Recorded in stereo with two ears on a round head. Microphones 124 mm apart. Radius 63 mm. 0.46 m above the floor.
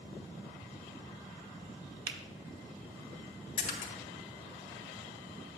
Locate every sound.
2.1 s a finger snap: 35° right (ahead or behind), 0.7 m
3.6 s a splash: 60° left (ahead or behind), 1.8 m